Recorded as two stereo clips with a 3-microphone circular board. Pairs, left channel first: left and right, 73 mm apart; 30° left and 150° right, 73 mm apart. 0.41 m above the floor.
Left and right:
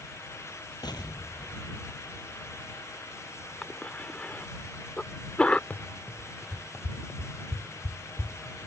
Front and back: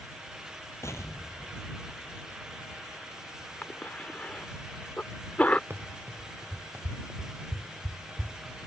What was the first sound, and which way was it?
An explosion, 80° left.